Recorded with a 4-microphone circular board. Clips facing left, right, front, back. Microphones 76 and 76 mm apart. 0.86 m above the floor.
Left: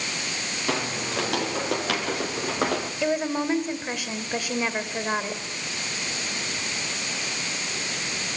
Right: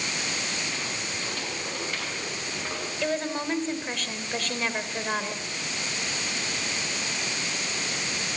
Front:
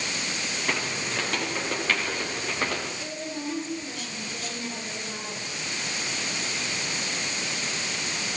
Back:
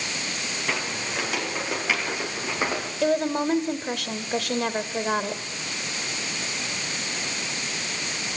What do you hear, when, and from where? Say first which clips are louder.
0.7 s footsteps: left 6 dB, even; 95° left, 8 m; by 2.9 s 105° left, 7 m
3.0 s a woman speaking: left 3 dB, back 11 dB; 170° left, 3 m